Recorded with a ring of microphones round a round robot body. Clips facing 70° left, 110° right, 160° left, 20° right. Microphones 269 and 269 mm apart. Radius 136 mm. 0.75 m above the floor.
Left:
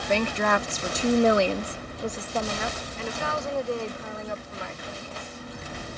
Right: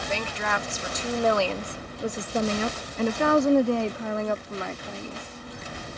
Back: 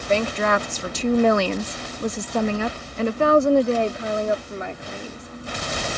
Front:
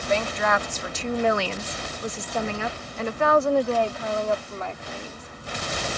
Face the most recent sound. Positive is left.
turn(degrees=-125)